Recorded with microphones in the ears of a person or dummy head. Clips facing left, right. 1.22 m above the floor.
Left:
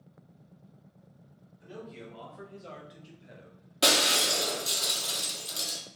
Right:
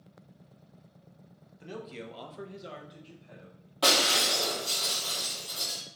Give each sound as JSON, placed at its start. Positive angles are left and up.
{"t": 1.6, "sound": "a man speaking", "side_deg": -80, "distance_m": 1.3}
{"t": 3.8, "sound": "breaking glass", "side_deg": 30, "distance_m": 1.3}